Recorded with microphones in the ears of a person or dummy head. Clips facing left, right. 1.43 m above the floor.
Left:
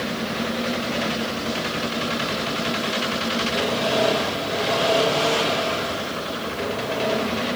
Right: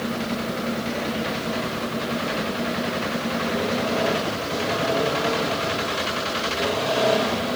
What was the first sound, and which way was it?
Only background noise.